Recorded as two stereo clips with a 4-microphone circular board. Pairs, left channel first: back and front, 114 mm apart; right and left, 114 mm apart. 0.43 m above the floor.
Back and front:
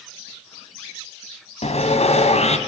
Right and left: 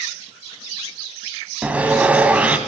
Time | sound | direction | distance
1.6 | sawing | 170° left | 2.5 m